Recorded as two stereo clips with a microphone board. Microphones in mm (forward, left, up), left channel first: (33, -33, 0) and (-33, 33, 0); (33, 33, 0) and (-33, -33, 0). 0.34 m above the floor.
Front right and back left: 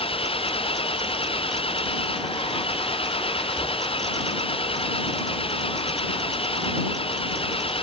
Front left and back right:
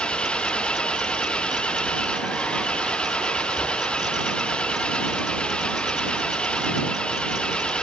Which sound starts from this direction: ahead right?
An engine running, at 0.0 s.